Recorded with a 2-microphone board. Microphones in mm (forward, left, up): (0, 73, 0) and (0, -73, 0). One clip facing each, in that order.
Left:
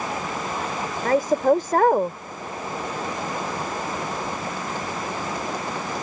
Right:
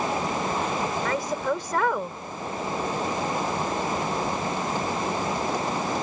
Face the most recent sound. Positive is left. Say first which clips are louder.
# left 8 dB
turn(degrees=45)  # may be behind; listen again after turning